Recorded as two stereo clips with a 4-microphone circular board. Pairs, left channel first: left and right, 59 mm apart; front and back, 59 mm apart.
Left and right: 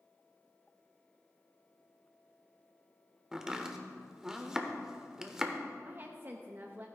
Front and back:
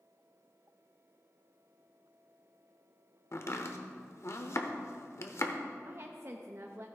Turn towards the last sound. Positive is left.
turn(degrees=-140)